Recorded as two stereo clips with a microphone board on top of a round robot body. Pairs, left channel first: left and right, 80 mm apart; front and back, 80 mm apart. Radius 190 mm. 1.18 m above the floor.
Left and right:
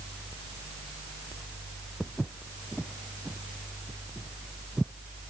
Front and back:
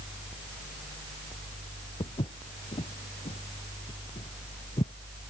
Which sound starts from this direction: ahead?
Footsteps, at 2.0 s.